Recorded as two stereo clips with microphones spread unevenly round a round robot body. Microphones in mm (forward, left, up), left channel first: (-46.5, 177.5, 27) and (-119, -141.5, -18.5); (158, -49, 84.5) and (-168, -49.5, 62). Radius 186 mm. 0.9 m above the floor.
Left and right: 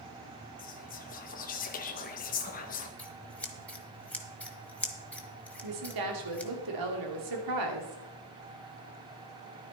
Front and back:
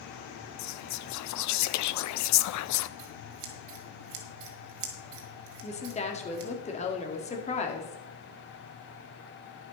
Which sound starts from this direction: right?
A woman speaking, at 5.6 s.